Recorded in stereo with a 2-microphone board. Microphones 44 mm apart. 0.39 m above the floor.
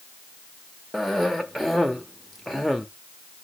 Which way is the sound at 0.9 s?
5° left (ahead or behind).